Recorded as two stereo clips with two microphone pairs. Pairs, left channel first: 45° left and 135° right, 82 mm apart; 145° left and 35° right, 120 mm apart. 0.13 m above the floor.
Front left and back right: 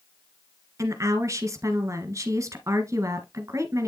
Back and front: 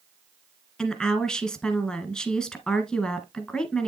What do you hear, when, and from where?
0.8 s a woman speaking: 135° right, 1.3 m